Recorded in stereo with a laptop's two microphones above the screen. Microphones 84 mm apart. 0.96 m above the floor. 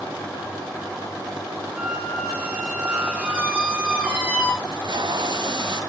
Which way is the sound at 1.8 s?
15° right (ahead or behind).